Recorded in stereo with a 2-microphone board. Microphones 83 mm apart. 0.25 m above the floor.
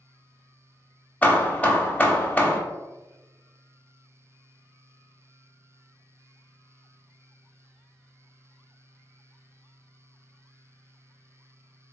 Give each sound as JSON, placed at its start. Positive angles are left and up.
{"t": 1.2, "sound": "hammering", "side_deg": 20, "distance_m": 0.6}